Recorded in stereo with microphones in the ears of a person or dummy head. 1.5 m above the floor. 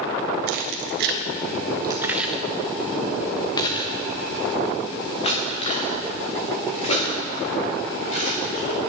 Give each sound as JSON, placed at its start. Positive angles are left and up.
{"t": 0.5, "sound": "keys jangling", "side_deg": -65, "distance_m": 0.8}